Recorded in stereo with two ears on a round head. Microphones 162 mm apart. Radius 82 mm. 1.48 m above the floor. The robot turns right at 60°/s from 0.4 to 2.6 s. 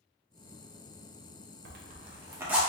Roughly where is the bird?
I don't hear a bird.